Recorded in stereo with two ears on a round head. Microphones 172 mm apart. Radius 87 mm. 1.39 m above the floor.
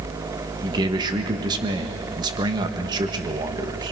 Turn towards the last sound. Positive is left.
turn(degrees=-20)  # may be behind; listen again after turning